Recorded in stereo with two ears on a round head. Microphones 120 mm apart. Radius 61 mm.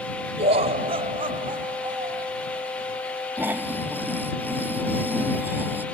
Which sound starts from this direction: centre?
Snoring, at 3.4 s.